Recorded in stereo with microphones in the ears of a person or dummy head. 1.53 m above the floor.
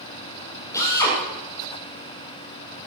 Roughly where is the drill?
Centre.